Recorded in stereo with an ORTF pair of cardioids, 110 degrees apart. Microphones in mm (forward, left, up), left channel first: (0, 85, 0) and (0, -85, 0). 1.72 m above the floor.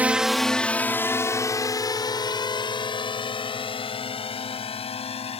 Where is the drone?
10° right; by 5.4 s 35° left.